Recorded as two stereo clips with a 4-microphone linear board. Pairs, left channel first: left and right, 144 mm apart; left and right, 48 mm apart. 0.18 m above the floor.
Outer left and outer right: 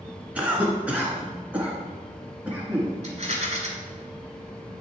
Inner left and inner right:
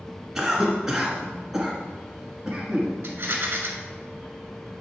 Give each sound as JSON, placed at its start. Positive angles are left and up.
{"t": 0.3, "sound": "a cough", "side_deg": -10, "distance_m": 1.7}
{"t": 3.0, "sound": "a rattle", "side_deg": -45, "distance_m": 1.5}